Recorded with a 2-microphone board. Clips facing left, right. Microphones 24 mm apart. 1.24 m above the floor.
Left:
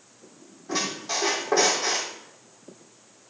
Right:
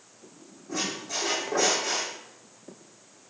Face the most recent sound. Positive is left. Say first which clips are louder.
# left 3 dB
turn(degrees=70)  # may be behind; listen again after turning